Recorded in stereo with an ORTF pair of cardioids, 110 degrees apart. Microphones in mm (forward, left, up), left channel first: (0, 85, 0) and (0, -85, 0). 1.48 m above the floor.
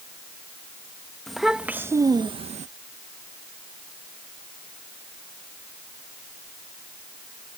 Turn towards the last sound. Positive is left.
turn(degrees=-45)